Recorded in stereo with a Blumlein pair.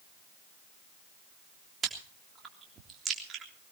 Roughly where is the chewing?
Ahead.